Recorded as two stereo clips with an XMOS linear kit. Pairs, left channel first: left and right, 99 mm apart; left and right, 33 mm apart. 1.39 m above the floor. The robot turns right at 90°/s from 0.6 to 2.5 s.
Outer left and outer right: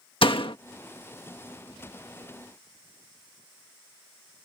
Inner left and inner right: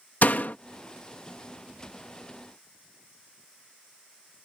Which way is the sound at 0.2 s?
60° left (ahead or behind).